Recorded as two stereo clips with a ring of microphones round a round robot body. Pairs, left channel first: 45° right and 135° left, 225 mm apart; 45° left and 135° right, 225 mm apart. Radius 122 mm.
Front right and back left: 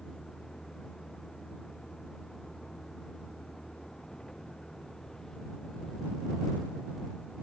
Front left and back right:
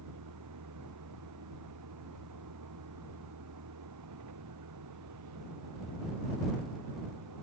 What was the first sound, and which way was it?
A vehicle, 135° right.